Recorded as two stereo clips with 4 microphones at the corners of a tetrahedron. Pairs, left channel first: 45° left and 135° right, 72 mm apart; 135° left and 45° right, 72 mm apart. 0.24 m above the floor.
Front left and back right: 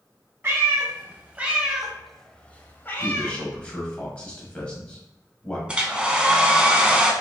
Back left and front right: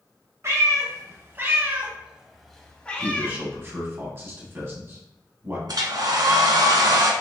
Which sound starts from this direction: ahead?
A man speaking, at 3.0 s.